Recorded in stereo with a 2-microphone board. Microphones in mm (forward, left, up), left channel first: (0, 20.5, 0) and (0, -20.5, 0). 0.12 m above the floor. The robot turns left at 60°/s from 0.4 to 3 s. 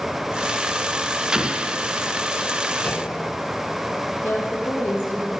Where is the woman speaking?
70° left (ahead or behind), 4 m.